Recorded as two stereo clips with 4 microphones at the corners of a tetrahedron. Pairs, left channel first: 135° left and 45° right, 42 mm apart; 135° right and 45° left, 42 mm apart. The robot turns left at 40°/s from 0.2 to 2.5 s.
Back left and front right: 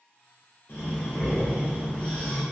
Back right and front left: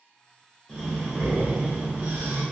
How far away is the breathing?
About 1.5 m.